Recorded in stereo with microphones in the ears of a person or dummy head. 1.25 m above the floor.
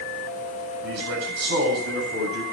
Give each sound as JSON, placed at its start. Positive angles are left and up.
{"t": 0.8, "sound": "a man speaking", "side_deg": -65, "distance_m": 8.0}